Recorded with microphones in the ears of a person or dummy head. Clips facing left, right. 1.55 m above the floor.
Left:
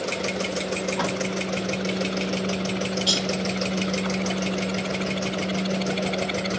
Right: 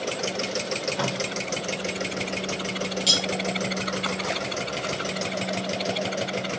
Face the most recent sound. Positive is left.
turn(degrees=-35)  # may be behind; listen again after turning